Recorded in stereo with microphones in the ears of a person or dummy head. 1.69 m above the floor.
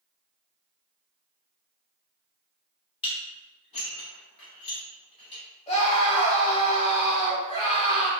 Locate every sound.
3.0 s dishes clattering: 35° left (ahead or behind), 1.6 m
5.7 s a scream: 30° left (ahead or behind), 1.9 m